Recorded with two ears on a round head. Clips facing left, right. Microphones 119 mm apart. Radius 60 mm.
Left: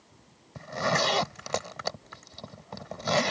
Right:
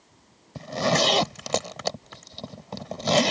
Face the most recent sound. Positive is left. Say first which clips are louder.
# right 4 dB
turn(degrees=-30)  # may be behind; listen again after turning